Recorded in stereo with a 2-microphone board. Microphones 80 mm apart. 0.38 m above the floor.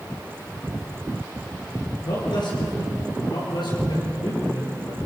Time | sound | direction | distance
2.0 | a man speaking | 80° left | 6.5 m